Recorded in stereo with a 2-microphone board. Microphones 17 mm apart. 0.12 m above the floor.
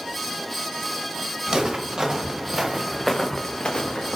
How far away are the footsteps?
About 1.4 m.